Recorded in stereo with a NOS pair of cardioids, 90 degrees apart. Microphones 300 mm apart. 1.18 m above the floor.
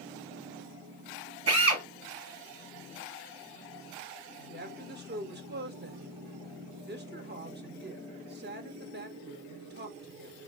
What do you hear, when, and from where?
1.5 s a drill: 55° right, 1.8 m
4.4 s a woman speaking: 35° right, 1.2 m